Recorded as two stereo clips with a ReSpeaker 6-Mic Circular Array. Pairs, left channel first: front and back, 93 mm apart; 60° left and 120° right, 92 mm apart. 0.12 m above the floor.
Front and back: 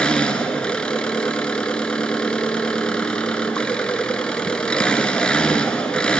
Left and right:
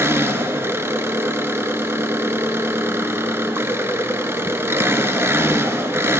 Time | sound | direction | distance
0.0 | an engine running | 75° right | 1.2 m